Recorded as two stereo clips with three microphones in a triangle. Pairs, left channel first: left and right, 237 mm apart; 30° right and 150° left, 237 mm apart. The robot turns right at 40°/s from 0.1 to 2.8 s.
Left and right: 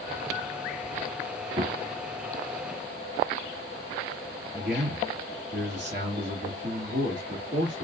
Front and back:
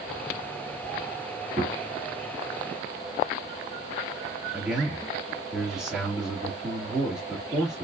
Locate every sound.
1.6 s a gunshot: 140° right, 2.5 m; by 1.8 s 130° right, 2.5 m
4.5 s a man speaking: 125° right, 2 m